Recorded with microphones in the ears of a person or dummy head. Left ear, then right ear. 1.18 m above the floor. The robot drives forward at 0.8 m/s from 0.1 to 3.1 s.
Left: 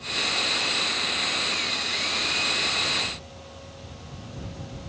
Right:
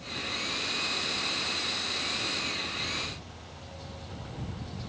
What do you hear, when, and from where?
Only background noise.